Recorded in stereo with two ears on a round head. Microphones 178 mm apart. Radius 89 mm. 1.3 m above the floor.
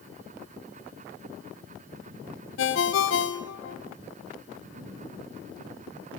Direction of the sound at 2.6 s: 70° left (ahead or behind).